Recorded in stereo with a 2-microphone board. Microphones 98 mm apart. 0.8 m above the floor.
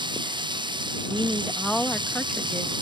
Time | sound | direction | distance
0.0 | running water | 50° right (ahead or behind) | ?
1.1 | a woman speaking | 10° left (ahead or behind) | ?